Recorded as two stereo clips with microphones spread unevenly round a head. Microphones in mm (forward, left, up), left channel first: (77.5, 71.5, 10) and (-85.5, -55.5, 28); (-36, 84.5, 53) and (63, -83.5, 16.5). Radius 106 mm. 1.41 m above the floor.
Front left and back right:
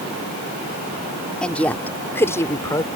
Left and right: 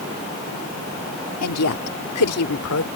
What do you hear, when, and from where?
1.4 s a woman speaking: 125° left; by 2.9 s 115° left